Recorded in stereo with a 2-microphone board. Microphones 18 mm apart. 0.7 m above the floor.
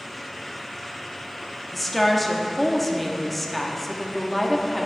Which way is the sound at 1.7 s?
Centre (ahead or behind).